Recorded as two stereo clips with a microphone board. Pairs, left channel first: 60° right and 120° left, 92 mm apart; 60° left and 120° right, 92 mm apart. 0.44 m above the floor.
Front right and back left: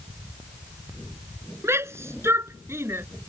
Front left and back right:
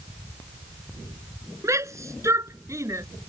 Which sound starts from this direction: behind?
A shout, at 1.6 s.